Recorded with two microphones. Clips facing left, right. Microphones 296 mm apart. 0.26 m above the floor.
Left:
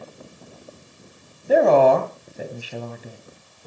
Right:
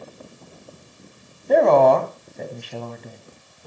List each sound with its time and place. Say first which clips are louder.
1.5 s a woman speaking: even; 5° left (ahead or behind), 2.0 m